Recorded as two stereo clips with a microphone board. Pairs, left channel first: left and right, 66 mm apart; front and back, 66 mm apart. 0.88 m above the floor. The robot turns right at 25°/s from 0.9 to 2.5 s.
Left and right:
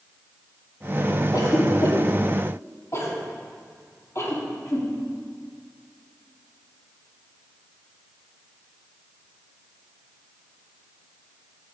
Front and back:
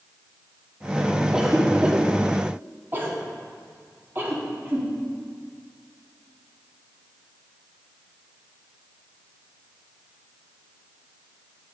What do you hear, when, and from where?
1.3 s a cough: 100° left, 2 m; by 4.9 s 130° left, 2 m